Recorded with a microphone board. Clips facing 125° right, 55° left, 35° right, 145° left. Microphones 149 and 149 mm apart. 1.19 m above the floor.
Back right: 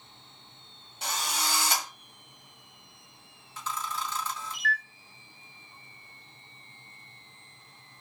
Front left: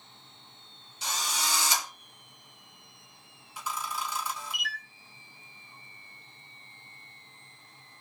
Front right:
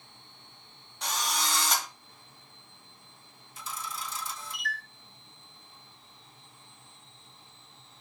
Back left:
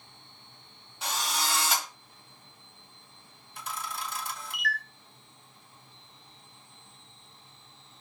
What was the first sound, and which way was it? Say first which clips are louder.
A drill: back right 1 dB, even; 130° right.